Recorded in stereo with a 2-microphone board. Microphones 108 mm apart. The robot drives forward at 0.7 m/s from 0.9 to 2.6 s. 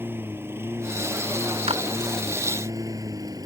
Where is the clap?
70° right (ahead or behind).